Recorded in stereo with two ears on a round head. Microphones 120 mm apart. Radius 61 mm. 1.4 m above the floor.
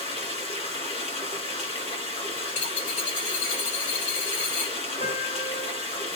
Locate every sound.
0.0 s running water: 50° left (ahead or behind), 1.9 m
2.5 s a dropped coin: 70° left (ahead or behind), 2 m
5.0 s a piano: 65° left (ahead or behind), 2.5 m